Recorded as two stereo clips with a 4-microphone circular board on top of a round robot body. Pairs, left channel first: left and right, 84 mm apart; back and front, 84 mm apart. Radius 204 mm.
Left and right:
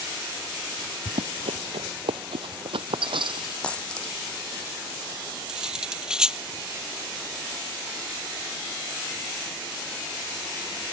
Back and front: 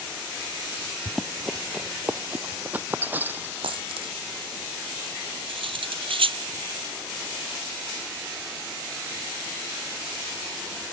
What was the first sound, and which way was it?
Running footsteps, 95° right.